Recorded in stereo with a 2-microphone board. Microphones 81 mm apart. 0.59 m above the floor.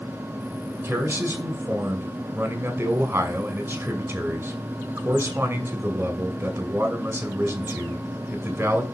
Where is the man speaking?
30° right (ahead or behind), 2.5 m.